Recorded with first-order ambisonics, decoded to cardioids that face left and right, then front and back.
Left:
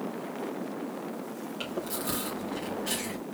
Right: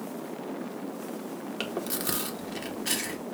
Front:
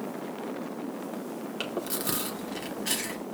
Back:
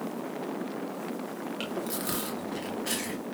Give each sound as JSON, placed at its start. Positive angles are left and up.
{"t": 1.6, "sound": "chewing", "azimuth_deg": -65, "distance_m": 0.8}